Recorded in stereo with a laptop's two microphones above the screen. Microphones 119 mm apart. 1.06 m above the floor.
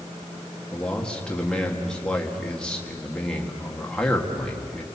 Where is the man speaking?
10° left (ahead or behind), 1.8 m.